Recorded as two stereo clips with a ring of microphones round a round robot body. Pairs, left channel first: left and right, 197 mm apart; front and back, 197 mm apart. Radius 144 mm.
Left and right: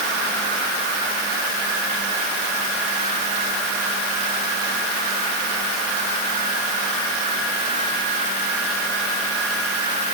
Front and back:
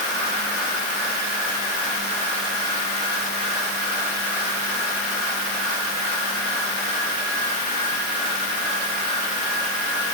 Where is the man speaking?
No man speaking in this recording.